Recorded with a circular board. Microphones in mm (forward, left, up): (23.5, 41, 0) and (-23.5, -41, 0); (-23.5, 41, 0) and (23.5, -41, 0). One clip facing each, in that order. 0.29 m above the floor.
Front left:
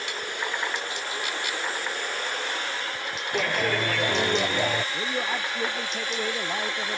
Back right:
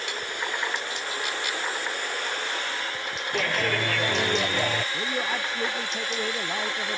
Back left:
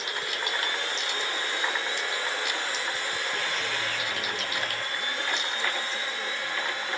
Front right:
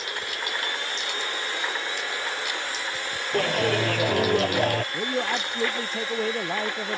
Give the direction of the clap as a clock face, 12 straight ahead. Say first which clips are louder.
Front left 1 dB, front right 8 dB; 1 o'clock.